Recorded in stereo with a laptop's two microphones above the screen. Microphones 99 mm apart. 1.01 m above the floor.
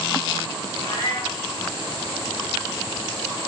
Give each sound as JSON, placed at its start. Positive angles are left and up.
{"t": 0.8, "sound": "a cat meowing", "side_deg": 65, "distance_m": 5.0}